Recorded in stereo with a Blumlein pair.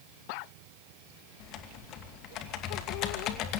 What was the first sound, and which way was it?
Typing on a keyboard, 35° left.